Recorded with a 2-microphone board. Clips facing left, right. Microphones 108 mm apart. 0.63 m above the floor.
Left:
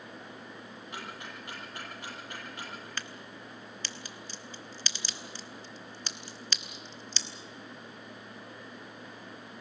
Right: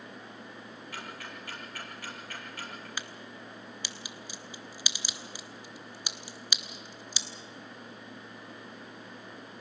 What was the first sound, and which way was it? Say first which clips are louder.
Ticking: left 1 dB; 20° left (ahead or behind).